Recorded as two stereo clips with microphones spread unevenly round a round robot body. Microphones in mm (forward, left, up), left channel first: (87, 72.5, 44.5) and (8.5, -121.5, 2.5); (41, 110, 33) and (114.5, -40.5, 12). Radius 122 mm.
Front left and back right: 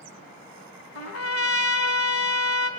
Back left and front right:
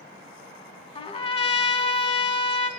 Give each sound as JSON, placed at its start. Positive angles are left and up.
{"t": 0.9, "sound": "a trumpet", "azimuth_deg": 60, "distance_m": 2.0}